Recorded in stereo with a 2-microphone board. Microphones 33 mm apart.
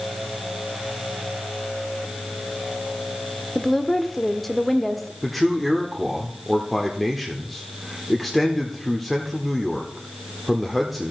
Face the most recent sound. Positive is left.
turn(degrees=0)  # may be behind; listen again after turning